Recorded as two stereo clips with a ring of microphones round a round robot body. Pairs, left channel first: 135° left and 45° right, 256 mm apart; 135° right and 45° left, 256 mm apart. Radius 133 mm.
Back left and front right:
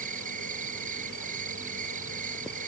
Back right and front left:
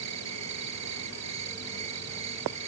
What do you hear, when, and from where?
0.0 s an insect: 15° left